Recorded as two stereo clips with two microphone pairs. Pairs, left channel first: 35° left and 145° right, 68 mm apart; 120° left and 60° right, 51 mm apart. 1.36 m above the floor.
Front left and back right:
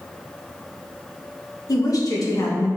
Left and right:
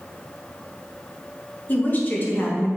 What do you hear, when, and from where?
1.7 s a woman speaking: 65° left, 1.9 m